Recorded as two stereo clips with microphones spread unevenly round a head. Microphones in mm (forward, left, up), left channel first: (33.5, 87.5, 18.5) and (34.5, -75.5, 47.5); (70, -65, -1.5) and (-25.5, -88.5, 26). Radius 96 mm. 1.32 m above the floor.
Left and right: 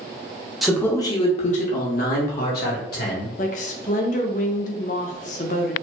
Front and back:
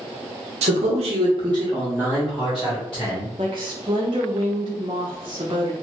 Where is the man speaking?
175° left, 0.7 m; by 3.3 s 90° left, 1.6 m.